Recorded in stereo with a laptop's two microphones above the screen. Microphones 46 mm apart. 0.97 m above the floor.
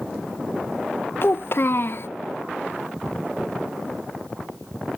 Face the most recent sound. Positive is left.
turn(degrees=55)  # may be behind; listen again after turning